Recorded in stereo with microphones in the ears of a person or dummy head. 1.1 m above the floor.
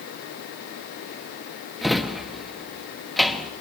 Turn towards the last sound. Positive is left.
turn(degrees=0)  # may be behind; listen again after turning